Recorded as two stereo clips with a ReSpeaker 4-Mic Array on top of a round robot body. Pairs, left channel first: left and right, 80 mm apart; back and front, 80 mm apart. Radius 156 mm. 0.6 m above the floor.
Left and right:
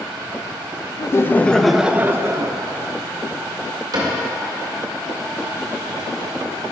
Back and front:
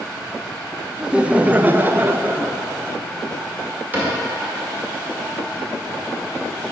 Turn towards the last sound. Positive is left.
turn(degrees=-65)